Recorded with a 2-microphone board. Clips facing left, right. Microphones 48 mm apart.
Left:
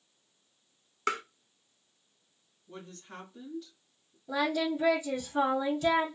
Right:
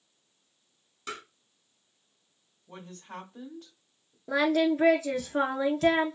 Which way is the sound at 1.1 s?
65° left (ahead or behind).